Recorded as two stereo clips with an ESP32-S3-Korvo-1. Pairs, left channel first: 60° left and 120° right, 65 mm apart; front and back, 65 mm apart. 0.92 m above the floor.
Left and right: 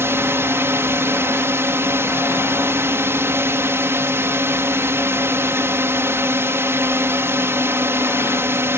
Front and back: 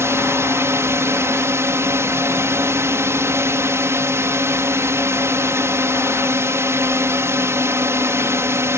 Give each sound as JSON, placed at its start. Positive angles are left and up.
{"t": 0.0, "sound": "a drone", "azimuth_deg": -155}